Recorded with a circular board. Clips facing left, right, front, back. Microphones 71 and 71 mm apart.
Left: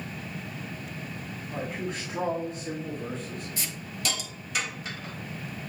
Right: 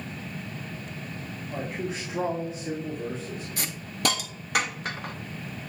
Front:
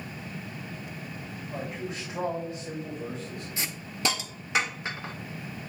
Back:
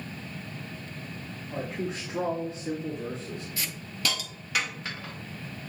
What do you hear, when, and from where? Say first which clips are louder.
1.5 s a man speaking: right 1 dB, back 3 dB; 170° right, 1.8 m
3.6 s a hiss: right 5 dB, front 2 dB; 65° right, 0.6 m